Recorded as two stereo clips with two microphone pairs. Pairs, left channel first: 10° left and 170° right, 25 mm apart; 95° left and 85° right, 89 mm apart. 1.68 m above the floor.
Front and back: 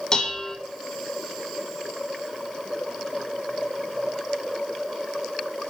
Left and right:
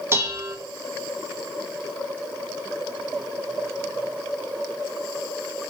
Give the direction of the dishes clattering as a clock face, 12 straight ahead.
1 o'clock.